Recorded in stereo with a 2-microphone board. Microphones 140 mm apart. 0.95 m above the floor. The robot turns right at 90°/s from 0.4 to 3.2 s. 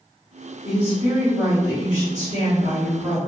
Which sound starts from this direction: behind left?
A woman speaking, at 0.7 s.